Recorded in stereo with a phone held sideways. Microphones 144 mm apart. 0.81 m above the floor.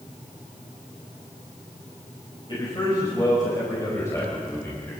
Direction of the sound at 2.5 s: 30° left (ahead or behind).